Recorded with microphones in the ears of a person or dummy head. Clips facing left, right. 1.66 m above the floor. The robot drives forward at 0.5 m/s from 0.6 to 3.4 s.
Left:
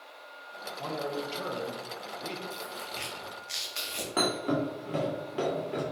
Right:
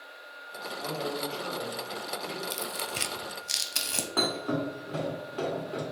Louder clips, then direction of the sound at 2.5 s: Right 4 dB; 70° right (ahead or behind).